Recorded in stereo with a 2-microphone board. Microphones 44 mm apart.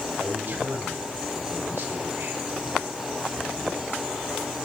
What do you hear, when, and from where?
0.2 s a man speaking: 45° right (ahead or behind), 6 m